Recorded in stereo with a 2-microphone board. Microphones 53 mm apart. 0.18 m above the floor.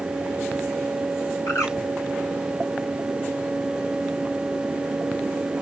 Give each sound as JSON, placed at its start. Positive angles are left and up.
{"t": 1.5, "sound": "a bird", "side_deg": 65, "distance_m": 2.0}